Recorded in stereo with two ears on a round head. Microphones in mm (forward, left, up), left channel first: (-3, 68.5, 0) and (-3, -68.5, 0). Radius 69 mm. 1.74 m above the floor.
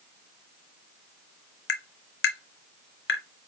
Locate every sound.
1.7 s tapping: 80° left, 1.3 m